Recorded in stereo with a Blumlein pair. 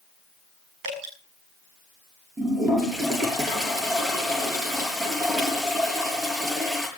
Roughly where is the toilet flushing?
Ahead.